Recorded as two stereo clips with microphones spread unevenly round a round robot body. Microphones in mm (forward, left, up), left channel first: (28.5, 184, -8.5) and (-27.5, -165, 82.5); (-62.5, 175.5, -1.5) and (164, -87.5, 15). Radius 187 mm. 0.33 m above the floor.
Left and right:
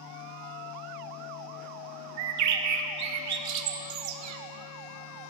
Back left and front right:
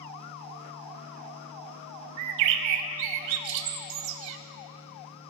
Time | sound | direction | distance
2.2 | a bird | 50° right | 0.5 m